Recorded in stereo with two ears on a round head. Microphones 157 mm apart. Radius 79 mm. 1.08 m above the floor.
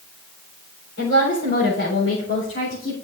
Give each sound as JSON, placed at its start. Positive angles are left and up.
{"t": 1.0, "sound": "a woman speaking", "side_deg": 60, "distance_m": 4.0}